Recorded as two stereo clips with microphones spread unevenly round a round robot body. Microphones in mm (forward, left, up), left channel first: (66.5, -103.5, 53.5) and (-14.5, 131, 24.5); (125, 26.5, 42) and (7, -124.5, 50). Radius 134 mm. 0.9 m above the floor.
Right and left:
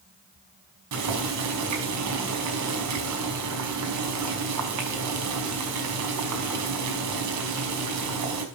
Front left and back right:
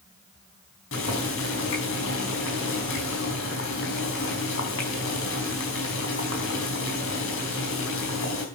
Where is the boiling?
90° left, 4.5 m.